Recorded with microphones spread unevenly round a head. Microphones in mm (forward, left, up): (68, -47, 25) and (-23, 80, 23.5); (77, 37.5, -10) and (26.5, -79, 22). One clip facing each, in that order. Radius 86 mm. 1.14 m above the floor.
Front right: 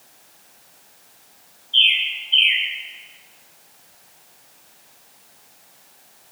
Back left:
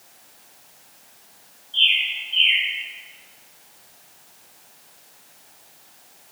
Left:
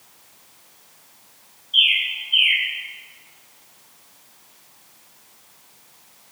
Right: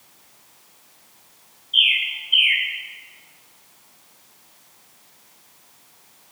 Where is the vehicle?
No vehicle in this recording.